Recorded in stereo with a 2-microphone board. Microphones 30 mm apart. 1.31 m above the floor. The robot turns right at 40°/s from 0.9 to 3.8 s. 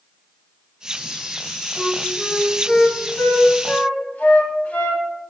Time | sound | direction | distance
1.8 | a flute | 15° left (ahead or behind) | 2 m